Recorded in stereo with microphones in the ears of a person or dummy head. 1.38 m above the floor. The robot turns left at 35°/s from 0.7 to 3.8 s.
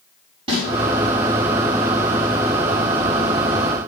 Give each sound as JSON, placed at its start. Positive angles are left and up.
{"t": 0.5, "sound": "a snare drum", "side_deg": -30, "distance_m": 6.0}